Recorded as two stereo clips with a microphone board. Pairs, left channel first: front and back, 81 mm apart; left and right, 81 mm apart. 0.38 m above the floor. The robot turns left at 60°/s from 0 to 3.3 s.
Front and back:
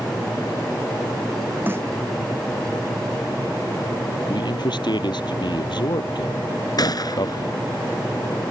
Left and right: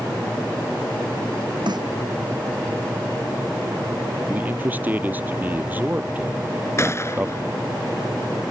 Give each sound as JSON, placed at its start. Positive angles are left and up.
{"t": 1.7, "sound": "a snare drum", "azimuth_deg": -115}
{"t": 4.3, "sound": "a man speaking", "azimuth_deg": -20}
{"t": 6.8, "sound": "a gunshot", "azimuth_deg": 35}